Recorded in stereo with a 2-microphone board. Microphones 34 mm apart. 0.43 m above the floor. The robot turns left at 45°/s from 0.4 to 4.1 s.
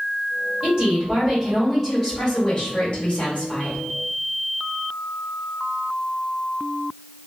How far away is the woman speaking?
About 1.5 m.